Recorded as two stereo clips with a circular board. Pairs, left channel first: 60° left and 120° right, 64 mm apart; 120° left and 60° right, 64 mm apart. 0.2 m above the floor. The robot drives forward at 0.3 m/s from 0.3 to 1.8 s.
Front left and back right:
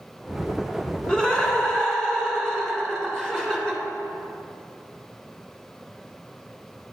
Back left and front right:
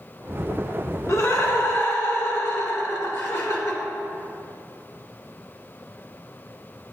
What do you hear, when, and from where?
1.1 s laughter: 135° left, 1.6 m; by 3.8 s 140° left, 1.8 m